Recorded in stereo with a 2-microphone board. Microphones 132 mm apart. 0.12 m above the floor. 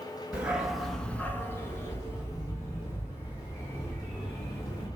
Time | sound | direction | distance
0.3 | a dog barking | 10° right (ahead or behind) | 0.8 m